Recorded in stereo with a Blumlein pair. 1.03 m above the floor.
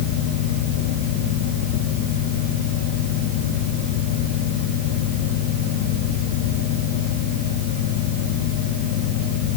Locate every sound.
0.0 s a fan: 50° left, 1.2 m